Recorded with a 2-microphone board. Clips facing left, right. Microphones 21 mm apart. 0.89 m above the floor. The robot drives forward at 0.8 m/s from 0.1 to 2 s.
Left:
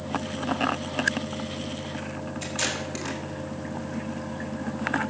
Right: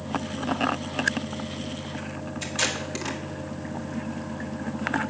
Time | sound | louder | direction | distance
2.4 | tape being pulled | right 2 dB | 10° right (ahead or behind) | 1.9 m